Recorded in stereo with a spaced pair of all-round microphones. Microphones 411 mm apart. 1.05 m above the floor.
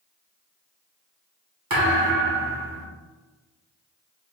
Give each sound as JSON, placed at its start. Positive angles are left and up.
{"t": 1.7, "sound": "a thud", "side_deg": -55, "distance_m": 1.1}